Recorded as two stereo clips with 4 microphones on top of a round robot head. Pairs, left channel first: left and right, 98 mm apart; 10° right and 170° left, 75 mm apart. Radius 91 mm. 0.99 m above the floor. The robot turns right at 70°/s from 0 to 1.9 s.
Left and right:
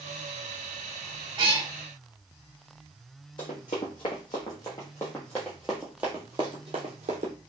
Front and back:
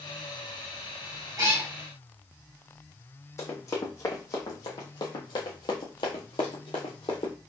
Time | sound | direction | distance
1.4 | a cat meowing | 140° right | 2.0 m
3.4 | running footsteps | 40° left | 2 m